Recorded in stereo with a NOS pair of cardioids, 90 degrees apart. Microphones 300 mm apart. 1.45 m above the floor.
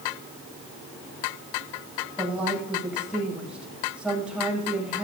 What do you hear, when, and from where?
2.2 s a woman speaking: 5° right, 9 m